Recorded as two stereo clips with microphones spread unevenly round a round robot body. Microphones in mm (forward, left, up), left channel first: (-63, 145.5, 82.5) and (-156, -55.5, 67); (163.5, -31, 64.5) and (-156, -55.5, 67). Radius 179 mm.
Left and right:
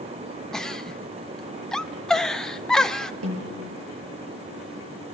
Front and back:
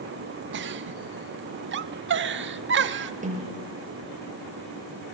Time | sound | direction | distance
0.5 | a giggle | 155° left | 0.8 m
3.2 | a snare drum | 110° right | 6 m